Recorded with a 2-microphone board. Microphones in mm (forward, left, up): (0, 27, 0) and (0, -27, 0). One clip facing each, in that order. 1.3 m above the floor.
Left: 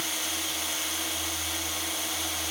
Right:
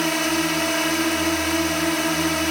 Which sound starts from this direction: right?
A drone, at 0.0 s.